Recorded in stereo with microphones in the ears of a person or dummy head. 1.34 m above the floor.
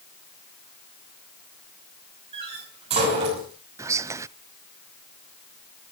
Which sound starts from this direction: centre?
Whispering, at 3.8 s.